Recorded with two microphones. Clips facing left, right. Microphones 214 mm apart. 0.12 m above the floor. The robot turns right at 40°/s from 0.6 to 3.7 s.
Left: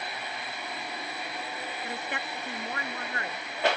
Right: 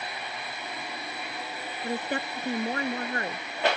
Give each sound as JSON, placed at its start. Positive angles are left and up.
{"t": 1.8, "sound": "a woman speaking", "azimuth_deg": -120}